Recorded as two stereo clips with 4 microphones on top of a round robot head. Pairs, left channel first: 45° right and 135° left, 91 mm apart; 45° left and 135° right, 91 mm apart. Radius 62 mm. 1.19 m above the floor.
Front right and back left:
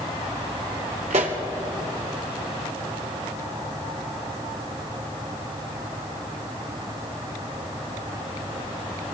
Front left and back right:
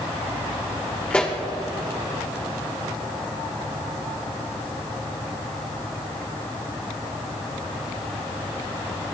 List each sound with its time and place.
1.1 s a pop: 120° left, 1.4 m